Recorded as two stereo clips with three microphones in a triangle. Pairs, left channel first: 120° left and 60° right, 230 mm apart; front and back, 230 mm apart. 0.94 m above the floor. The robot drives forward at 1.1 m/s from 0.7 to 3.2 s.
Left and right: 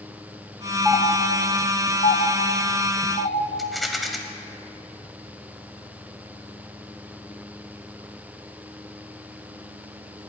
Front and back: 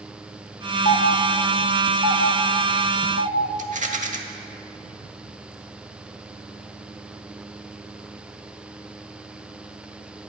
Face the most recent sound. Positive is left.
turn(degrees=-150)